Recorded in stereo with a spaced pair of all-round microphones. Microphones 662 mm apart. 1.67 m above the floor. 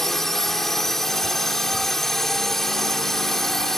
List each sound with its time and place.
0.0 s a drone: centre (ahead or behind)